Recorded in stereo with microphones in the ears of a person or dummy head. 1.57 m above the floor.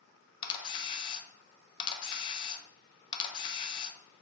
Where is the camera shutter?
25° left (ahead or behind), 0.5 m.